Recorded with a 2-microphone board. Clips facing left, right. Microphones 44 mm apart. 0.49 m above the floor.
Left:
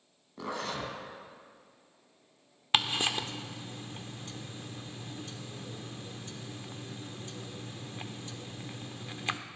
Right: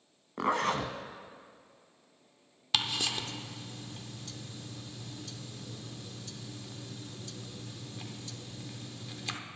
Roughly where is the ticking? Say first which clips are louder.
Left 3 dB; left.